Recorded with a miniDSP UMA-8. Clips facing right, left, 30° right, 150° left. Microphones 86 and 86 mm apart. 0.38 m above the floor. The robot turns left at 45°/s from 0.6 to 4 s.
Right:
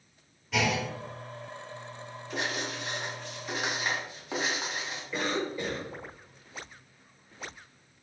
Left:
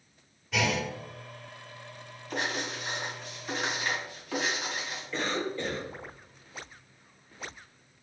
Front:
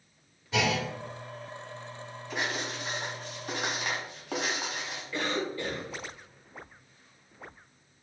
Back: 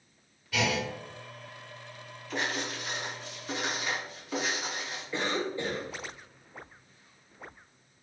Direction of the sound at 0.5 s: Straight ahead.